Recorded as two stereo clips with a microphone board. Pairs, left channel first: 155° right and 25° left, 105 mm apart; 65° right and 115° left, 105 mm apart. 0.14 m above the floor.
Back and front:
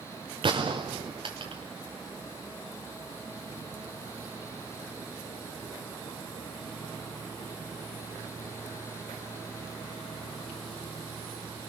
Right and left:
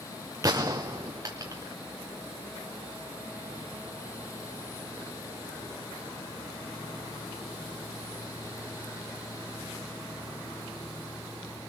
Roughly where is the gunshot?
Ahead left.